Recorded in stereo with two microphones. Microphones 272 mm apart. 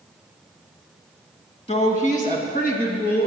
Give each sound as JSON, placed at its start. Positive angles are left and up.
{"t": 1.7, "sound": "a woman speaking", "side_deg": 25, "distance_m": 1.5}